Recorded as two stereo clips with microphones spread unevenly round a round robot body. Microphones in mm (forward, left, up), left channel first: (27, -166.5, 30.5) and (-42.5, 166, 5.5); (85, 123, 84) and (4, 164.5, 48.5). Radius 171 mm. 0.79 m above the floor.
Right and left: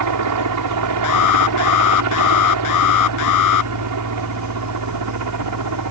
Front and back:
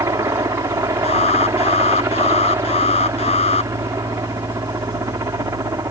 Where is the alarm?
40° right.